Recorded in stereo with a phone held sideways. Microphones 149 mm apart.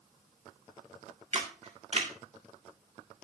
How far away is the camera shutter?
About 2.0 m.